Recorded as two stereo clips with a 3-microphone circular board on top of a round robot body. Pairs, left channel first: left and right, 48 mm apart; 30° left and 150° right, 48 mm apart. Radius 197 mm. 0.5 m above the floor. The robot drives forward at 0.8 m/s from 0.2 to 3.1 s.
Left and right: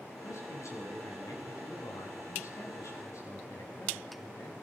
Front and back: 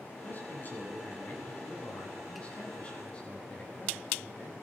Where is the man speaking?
80° left, 8 m; by 4.5 s 100° left, 8 m.